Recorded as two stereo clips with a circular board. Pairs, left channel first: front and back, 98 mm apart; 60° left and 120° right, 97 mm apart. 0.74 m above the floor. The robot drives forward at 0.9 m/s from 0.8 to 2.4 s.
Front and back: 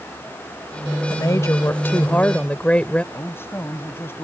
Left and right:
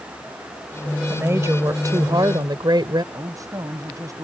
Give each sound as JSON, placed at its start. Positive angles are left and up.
{"t": 1.1, "sound": "a woman speaking", "azimuth_deg": -55}
{"t": 3.1, "sound": "a man speaking", "azimuth_deg": -65}